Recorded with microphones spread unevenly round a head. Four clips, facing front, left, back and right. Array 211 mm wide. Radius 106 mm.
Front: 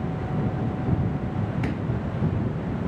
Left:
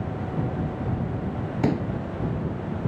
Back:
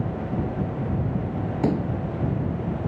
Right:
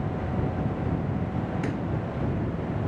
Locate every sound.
1.6 s a pop: 145° left